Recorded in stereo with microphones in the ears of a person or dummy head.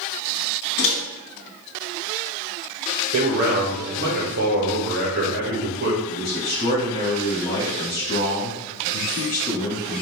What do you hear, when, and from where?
0.8 s a microwave: 35° left (ahead or behind), 1.4 m
3.1 s a man speaking: 50° right (ahead or behind), 1.3 m
6.1 s a man speaking: 30° left (ahead or behind), 1.8 m